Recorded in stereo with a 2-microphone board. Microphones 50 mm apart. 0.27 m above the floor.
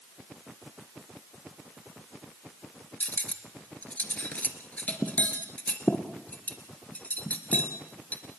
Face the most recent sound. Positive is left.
turn(degrees=35)  # may be behind; listen again after turning